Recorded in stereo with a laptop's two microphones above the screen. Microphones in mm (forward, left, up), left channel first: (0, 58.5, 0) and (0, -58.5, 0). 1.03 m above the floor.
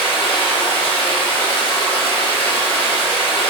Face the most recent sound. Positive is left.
turn(degrees=45)  # may be behind; listen again after turning